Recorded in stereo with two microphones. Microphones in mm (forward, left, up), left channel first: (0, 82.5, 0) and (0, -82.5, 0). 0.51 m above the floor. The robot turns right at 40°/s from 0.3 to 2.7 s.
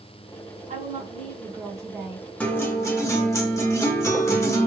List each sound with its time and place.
0.7 s a woman speaking: 65° right, 1.9 m; by 2.3 s straight ahead, 1.9 m
2.4 s a guitar: 10° left (ahead or behind), 1.3 m; by 4.7 s 20° left (ahead or behind), 1.3 m